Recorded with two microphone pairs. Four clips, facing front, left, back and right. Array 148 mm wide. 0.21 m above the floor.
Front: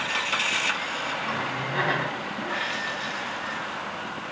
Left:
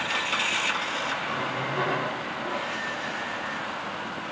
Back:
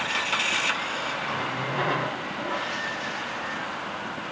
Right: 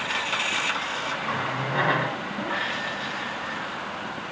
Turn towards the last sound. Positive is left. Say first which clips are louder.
# right 1 dB, even
turn(degrees=-60)